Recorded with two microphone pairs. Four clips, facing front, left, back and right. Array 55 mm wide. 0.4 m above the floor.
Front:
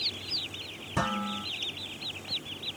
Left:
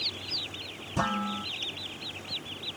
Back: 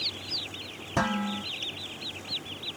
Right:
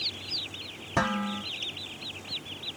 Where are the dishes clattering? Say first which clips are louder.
Right 1 dB, back 2 dB; 105° right, 4 m.